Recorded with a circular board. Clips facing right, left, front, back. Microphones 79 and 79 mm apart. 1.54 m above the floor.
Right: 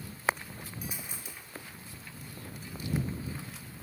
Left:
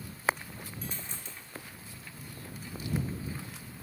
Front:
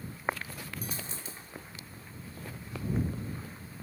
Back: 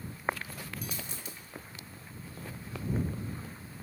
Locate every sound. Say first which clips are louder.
0.8 s a dropped coin: even, front 1 dB; 20° right